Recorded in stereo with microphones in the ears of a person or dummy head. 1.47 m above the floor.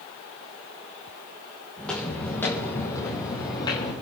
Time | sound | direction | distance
1.8 | footsteps | centre (ahead or behind) | 4 m